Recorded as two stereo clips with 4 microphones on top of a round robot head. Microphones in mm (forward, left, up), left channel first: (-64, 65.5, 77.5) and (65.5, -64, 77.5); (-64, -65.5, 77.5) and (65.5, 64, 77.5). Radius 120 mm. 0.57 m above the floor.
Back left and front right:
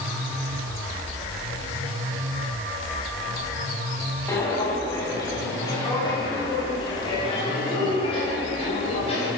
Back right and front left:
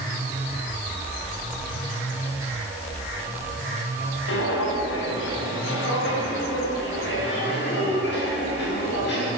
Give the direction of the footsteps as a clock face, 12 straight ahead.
5 o'clock.